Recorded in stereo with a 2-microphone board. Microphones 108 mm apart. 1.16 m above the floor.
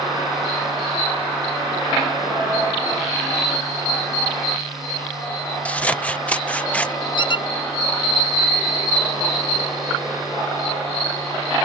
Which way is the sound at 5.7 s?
15° left (ahead or behind).